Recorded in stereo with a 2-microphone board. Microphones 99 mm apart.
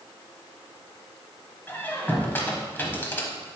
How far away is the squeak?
About 1.0 m.